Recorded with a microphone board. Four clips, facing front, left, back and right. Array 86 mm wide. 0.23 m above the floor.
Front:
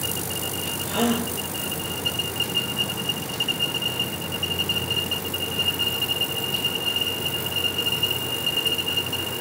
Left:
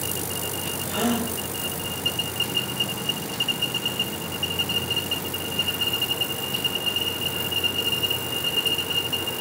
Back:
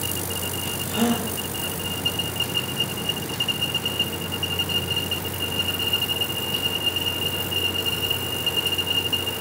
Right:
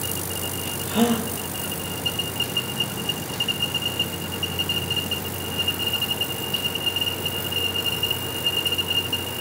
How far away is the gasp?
About 6.5 m.